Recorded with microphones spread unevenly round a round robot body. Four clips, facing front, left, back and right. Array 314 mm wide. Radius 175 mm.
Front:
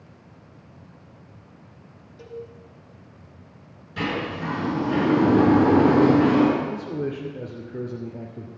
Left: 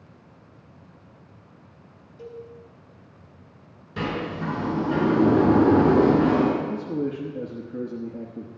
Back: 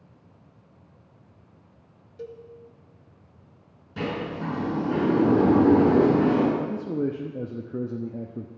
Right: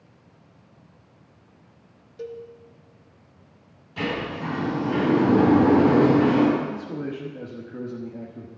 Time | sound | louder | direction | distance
2.2 | a cowbell | right 4 dB, front 2 dB | 110° right | 2.5 m
4.0 | a sliding door | even, front 2 dB | 135° left | 6 m
6.6 | a man speaking | left 3 dB, back 1 dB | 165° left | 0.9 m